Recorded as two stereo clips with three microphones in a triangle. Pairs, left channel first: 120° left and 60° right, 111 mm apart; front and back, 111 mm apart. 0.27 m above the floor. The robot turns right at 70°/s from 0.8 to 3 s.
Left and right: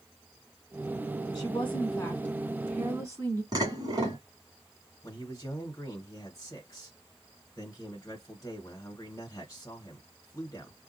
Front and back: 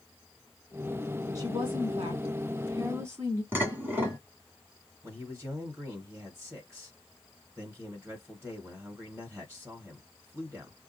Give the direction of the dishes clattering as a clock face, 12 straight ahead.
4 o'clock.